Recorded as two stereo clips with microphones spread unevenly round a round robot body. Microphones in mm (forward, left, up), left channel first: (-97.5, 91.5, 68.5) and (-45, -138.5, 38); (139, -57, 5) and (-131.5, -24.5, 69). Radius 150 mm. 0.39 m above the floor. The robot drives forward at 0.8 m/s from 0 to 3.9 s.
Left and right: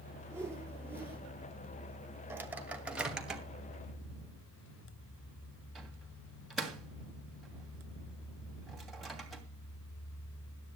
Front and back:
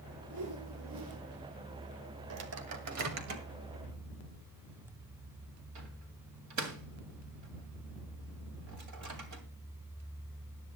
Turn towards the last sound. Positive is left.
turn(degrees=-165)